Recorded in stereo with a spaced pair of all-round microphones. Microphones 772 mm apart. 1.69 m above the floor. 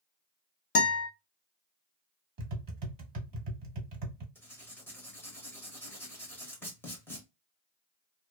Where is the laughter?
I don't hear laughter.